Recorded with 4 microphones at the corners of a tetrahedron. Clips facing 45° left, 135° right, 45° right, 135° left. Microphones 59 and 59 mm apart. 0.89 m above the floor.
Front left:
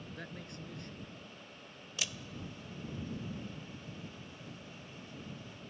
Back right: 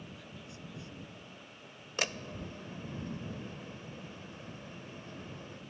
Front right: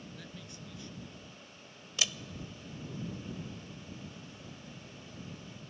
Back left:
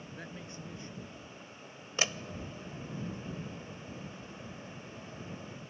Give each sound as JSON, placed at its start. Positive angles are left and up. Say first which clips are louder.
{"t": 0.1, "sound": "a man speaking", "louder": "front left 3 dB, back left 3 dB", "azimuth_deg": 75}
{"t": 2.0, "sound": "a door slam", "louder": "back right 6 dB, back left 3 dB", "azimuth_deg": -175}